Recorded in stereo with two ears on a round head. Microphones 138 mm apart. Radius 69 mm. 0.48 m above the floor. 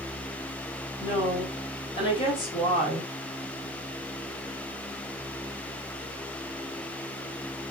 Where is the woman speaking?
35° left (ahead or behind), 1.2 m.